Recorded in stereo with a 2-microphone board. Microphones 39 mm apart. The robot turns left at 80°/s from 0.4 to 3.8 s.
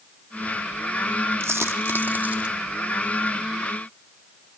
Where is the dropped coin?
70° right (ahead or behind), 3.5 m; by 2.5 s 20° right (ahead or behind), 3.5 m.